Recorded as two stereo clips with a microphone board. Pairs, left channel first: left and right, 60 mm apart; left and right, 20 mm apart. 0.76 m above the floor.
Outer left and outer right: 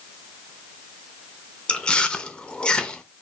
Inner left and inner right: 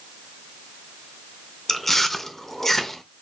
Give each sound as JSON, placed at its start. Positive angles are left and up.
{"t": 1.7, "sound": "chewing", "side_deg": 15, "distance_m": 0.6}